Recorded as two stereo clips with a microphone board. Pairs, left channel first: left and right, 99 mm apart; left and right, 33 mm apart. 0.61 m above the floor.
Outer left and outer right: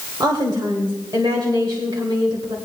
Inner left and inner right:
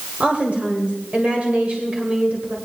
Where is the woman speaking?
45° right (ahead or behind), 1.9 m.